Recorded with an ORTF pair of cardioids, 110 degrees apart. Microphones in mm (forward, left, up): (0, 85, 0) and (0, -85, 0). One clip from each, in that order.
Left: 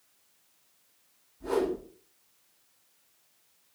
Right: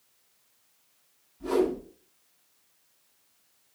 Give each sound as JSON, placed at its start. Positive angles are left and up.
{"t": 1.4, "sound": "a whoosh", "azimuth_deg": -45, "distance_m": 1.6}